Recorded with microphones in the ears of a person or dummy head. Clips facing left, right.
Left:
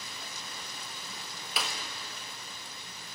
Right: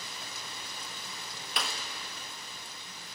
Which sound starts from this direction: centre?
A clap, at 1.6 s.